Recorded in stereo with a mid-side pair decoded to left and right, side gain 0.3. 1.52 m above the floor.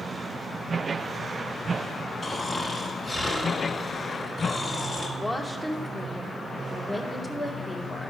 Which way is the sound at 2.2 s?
50° left.